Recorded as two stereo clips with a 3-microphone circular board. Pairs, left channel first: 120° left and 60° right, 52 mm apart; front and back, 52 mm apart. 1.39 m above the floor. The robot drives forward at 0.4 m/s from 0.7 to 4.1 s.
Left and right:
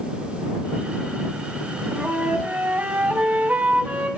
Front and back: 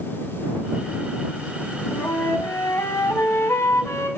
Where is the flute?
5° left, 1.7 m.